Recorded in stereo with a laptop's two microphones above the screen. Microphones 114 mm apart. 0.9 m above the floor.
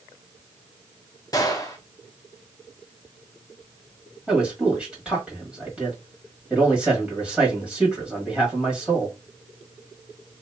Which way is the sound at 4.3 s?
10° right (ahead or behind).